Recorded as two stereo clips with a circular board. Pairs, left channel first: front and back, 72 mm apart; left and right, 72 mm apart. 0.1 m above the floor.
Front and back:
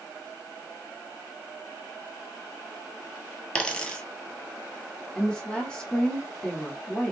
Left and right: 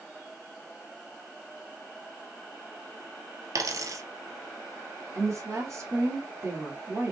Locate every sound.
3.5 s a dropped coin: 70° right, 1.0 m
5.2 s a woman speaking: 70° right, 1.6 m